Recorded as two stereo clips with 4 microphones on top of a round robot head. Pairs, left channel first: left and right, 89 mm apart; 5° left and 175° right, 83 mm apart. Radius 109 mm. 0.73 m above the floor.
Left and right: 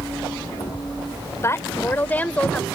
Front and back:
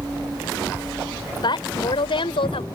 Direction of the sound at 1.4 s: 30° left.